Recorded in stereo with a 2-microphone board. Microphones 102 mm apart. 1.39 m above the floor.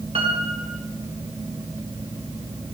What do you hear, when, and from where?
0.1 s a piano: 70° right (ahead or behind), 3.5 m